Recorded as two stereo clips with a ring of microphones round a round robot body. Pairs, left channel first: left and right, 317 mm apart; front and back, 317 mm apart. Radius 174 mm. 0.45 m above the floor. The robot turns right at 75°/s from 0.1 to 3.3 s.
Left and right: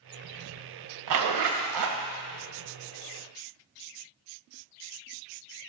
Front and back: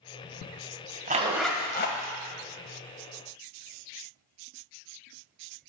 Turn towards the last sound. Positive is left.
turn(degrees=50)